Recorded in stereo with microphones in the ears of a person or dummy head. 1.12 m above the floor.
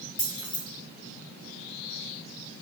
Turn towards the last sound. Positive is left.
turn(degrees=10)  # may be behind; listen again after turning